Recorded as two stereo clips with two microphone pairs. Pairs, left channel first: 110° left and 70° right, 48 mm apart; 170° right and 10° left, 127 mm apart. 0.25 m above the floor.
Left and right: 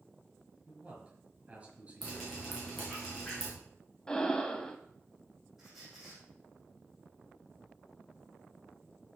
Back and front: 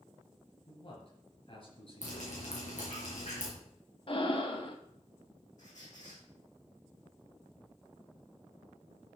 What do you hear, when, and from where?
0.7 s a man speaking: 130° right, 4.5 m
2.0 s dripping: 165° right, 4.5 m
4.1 s breathing: 175° right, 1.0 m
5.6 s a squeak: 150° right, 5.5 m